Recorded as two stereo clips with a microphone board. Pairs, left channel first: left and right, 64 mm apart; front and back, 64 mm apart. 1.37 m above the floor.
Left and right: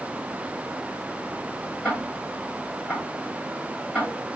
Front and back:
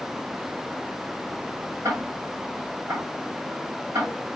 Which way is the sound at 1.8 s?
160° left.